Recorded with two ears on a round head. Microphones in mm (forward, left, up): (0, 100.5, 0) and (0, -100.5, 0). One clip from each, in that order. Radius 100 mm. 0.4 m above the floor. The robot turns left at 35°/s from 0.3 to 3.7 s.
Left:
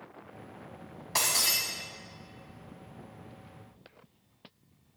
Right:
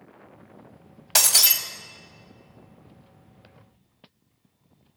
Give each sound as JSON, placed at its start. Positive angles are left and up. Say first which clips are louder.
{"t": 1.1, "sound": "breaking glass", "louder": "right 7 dB", "side_deg": -75, "distance_m": 1.0}